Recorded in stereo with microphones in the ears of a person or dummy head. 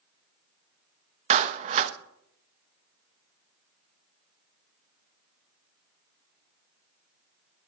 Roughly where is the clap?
Right.